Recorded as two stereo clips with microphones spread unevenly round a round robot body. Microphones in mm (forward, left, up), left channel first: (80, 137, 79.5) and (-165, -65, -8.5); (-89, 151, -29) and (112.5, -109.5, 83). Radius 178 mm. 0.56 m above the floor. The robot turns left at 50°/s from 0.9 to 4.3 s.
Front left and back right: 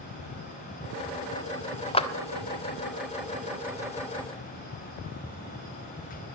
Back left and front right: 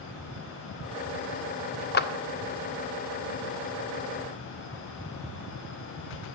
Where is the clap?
125° left, 1.2 m; by 2.1 s 115° left, 1.2 m.